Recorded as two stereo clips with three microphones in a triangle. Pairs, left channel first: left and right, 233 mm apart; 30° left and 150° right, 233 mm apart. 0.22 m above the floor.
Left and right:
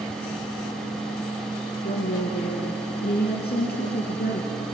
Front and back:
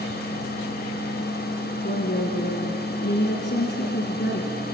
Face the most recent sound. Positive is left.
turn(degrees=55)